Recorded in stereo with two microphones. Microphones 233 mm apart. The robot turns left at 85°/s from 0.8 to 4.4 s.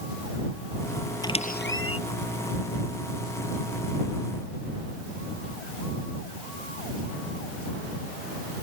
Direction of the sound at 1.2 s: 15° left (ahead or behind).